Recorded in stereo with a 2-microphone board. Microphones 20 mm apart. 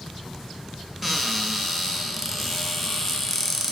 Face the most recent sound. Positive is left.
turn(degrees=-5)  # may be behind; listen again after turning